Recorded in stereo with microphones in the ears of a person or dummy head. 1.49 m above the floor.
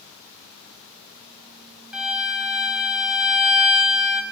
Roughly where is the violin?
Centre.